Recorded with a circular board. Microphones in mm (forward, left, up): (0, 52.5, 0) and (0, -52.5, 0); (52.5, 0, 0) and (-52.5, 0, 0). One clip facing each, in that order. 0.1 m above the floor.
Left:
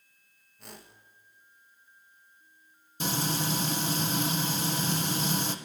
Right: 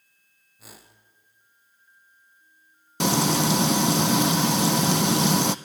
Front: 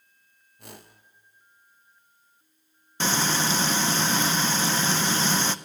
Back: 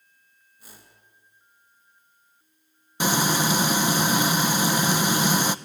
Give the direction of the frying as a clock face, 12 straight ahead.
3 o'clock.